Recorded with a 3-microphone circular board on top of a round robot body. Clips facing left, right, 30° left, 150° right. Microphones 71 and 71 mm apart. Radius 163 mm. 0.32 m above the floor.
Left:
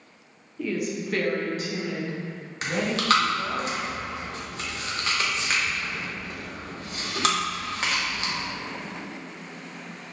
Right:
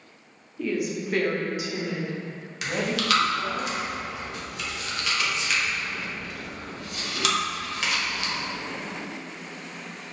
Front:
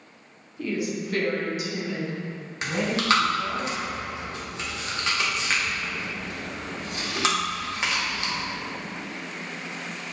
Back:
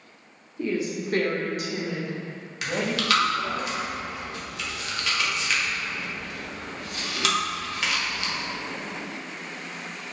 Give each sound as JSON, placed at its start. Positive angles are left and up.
{"t": 0.6, "sound": "a woman speaking", "azimuth_deg": 175, "distance_m": 1.1}
{"t": 2.6, "sound": "chewing", "azimuth_deg": 70, "distance_m": 1.3}